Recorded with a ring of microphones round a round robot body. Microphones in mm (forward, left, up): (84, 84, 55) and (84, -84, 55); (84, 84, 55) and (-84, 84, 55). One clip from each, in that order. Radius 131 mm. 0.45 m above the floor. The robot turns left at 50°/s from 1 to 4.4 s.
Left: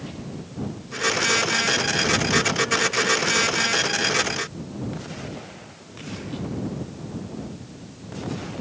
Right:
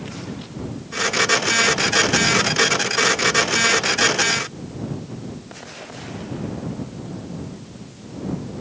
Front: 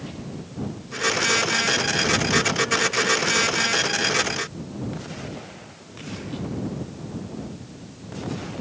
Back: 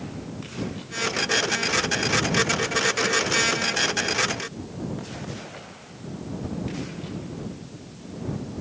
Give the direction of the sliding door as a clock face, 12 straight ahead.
I don't hear a sliding door.